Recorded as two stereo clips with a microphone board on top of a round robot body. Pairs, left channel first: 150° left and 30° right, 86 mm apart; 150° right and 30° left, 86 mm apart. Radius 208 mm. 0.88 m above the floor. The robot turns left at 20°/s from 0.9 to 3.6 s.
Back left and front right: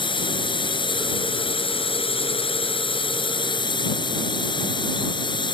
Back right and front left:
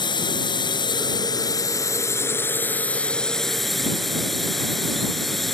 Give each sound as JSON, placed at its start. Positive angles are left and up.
{"t": 0.0, "sound": "a drone", "azimuth_deg": 175}